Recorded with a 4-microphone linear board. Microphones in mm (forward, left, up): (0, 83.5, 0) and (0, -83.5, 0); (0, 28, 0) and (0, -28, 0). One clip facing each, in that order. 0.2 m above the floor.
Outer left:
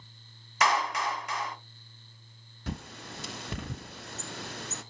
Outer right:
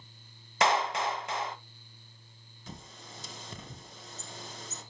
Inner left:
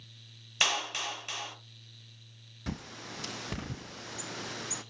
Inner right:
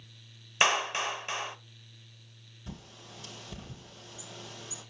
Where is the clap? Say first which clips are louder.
Outer right 1 dB, inner right 5 dB; 25° right (ahead or behind), 0.9 m.